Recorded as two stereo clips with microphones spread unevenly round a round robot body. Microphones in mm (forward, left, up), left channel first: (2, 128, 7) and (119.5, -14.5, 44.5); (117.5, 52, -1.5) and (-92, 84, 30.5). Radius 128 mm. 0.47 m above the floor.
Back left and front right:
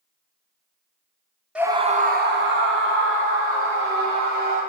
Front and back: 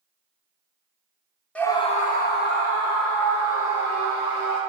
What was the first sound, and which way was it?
A scream, 50° left.